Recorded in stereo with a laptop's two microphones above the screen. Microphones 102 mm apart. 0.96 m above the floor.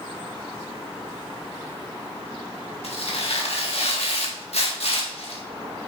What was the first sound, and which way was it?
Tearing paper, 70° left (ahead or behind).